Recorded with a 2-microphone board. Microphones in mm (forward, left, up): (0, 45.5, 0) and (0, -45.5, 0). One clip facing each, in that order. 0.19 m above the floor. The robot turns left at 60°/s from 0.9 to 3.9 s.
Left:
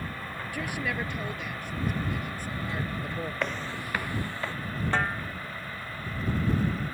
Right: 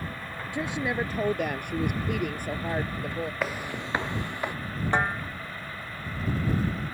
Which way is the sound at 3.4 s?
5° right (ahead or behind).